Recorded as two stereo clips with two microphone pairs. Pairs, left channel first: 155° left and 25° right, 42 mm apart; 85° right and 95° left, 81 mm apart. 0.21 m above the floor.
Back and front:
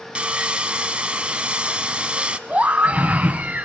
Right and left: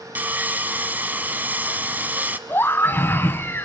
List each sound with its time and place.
0.1 s sawing: 30° left, 1.0 m
2.5 s a scream: 45° right, 1.3 m